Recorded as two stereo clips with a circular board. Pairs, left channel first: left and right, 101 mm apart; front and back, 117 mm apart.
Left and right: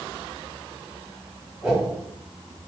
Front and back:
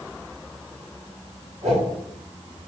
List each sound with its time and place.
1.6 s a whoosh: straight behind, 2 m